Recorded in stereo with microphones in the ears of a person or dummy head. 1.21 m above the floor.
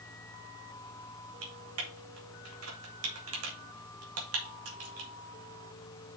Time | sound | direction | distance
0.0 | a fan | 20° left (ahead or behind) | 0.9 m
1.4 | typing on a keyboard | 70° right (ahead or behind) | 2 m